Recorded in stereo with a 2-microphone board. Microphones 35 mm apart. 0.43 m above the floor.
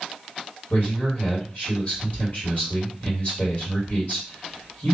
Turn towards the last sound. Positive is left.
turn(degrees=45)  # may be behind; listen again after turning